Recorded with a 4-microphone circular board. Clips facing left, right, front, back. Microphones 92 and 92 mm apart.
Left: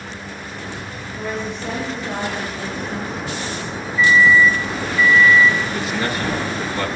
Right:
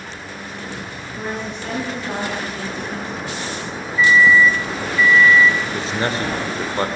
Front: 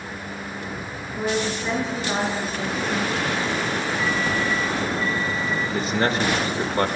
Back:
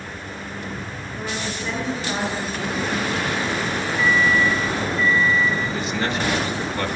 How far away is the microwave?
About 6.5 m.